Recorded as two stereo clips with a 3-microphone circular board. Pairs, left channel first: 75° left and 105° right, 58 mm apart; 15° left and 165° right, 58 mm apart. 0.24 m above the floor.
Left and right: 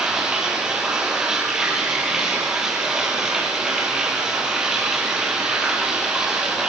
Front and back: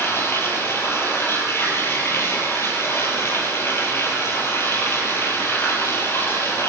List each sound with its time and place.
0.0 s running water: 25° right, 5.5 m